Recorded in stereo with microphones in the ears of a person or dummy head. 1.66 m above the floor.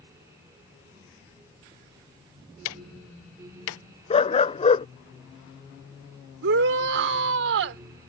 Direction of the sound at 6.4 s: 65° right (ahead or behind).